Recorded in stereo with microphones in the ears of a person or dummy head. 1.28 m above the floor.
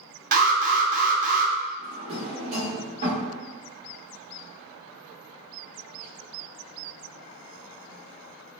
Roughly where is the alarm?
Right.